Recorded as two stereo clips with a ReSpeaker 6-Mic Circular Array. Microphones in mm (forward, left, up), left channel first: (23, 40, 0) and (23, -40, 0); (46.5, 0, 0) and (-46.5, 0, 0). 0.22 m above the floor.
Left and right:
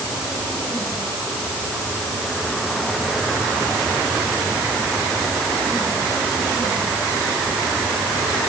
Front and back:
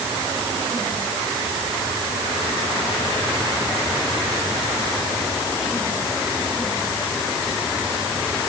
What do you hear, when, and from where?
Only background noise.